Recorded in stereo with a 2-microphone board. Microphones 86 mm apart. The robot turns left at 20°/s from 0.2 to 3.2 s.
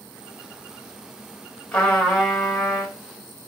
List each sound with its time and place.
1.7 s a trumpet: 15° left (ahead or behind), 1.0 m; by 2.9 s 5° right (ahead or behind), 1.0 m